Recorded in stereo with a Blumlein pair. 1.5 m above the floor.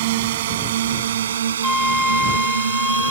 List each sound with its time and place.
0.0 s a drone: 55° right; by 3.1 s 75° right
1.6 s a flute: 5° left